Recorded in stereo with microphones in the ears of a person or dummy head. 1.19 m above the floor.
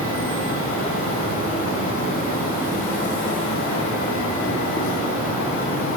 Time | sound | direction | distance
0.0 | an insect | 45° left (ahead or behind) | 2.5 m